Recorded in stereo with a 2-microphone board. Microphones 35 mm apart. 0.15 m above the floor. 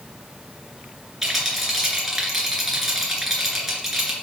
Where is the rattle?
5° right (ahead or behind), 2.5 m.